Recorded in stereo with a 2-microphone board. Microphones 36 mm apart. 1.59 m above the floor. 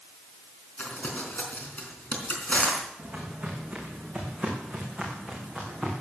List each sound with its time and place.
0.8 s crumpling: 45° left (ahead or behind), 4 m
3.0 s footsteps: 20° right (ahead or behind), 5 m; by 5.9 s 5° left (ahead or behind), 5.5 m